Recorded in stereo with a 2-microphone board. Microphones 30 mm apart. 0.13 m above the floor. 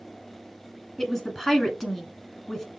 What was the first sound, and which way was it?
A woman speaking, 15° left (ahead or behind).